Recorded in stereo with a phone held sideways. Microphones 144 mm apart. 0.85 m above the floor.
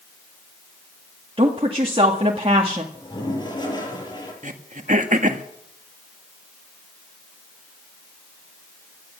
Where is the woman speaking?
40° right (ahead or behind), 1.8 m.